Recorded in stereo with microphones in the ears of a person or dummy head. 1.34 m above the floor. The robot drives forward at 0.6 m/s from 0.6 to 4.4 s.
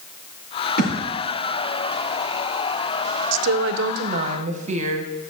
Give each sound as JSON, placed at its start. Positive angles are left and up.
{"t": 0.8, "sound": "a thud", "side_deg": 60, "distance_m": 5.0}
{"t": 3.3, "sound": "a woman speaking", "side_deg": -80, "distance_m": 0.6}